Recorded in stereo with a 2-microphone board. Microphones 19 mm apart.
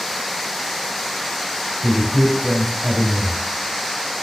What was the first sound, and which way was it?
A man speaking, 20° left (ahead or behind).